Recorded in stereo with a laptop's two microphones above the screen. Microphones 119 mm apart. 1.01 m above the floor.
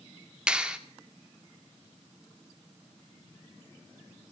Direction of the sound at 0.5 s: 10° right (ahead or behind).